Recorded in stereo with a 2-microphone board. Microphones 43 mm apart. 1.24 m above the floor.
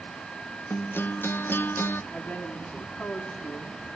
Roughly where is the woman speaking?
Left.